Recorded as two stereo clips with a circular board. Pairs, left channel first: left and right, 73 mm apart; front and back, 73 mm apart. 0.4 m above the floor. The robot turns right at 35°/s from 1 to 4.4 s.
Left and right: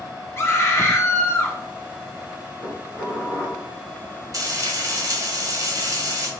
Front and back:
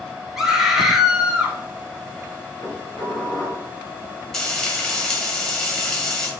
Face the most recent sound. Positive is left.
turn(degrees=-85)